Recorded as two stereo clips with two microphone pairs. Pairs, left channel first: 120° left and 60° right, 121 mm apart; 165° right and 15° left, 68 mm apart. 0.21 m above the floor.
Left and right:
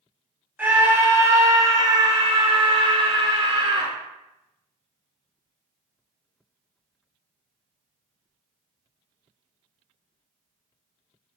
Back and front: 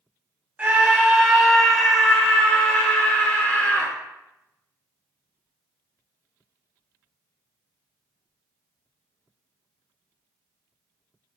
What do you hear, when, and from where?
0.6 s a scream: 5° right, 1.3 m; by 3.9 s 100° right, 2.5 m